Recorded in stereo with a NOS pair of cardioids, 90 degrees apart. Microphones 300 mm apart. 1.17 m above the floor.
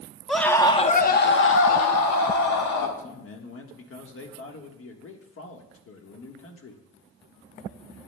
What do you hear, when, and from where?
0.3 s a scream: straight ahead, 1.0 m; by 2.9 s 75° left, 1.7 m
3.0 s a man speaking: 45° left, 1.4 m